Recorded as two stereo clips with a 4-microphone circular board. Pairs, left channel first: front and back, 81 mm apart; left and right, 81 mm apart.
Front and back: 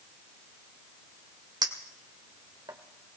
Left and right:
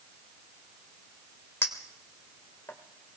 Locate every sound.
1.6 s a clink: 150° left, 1.7 m